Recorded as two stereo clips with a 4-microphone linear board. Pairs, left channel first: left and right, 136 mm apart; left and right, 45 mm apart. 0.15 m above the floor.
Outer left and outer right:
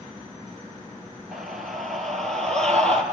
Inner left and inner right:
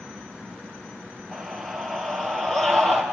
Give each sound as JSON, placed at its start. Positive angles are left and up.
{"t": 1.3, "sound": "a scream", "side_deg": 0, "distance_m": 2.5}